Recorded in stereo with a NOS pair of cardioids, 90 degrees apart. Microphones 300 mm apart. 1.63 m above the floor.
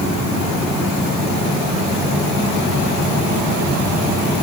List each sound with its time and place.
Only background noise.